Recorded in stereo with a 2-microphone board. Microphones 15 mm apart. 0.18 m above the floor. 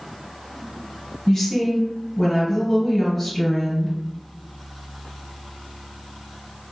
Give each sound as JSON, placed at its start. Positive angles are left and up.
{"t": 1.3, "sound": "a woman speaking", "side_deg": 15, "distance_m": 1.5}